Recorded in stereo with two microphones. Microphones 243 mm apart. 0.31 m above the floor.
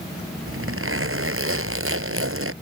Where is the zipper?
60° right (ahead or behind).